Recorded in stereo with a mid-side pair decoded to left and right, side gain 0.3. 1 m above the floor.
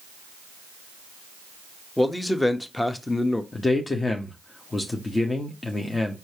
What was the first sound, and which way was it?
A man speaking, 20° left.